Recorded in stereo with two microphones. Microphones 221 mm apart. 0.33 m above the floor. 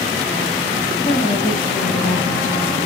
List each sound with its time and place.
1.1 s a woman speaking: 40° left (ahead or behind), 1.7 m